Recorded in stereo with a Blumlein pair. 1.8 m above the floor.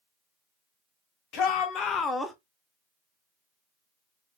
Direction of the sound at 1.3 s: 35° left.